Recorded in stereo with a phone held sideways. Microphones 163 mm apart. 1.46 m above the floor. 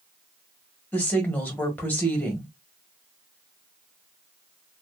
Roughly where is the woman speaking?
Centre.